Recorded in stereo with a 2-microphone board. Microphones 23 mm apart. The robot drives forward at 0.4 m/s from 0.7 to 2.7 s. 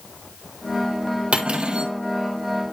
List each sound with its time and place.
1.3 s cutlery clinking: 55° right (ahead or behind), 1.7 m; by 1.9 s 50° right (ahead or behind), 1.8 m